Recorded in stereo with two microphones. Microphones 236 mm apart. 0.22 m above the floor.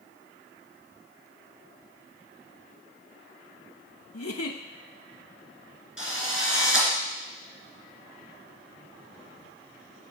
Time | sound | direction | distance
4.1 | a giggle | 75° left (ahead or behind) | 0.5 m
6.0 | a drill | 60° left (ahead or behind) | 2.5 m